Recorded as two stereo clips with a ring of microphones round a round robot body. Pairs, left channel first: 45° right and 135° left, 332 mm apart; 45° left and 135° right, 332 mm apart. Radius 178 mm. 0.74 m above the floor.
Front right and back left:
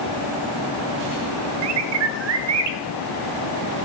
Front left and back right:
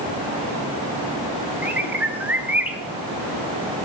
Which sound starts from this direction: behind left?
A bird, at 1.6 s.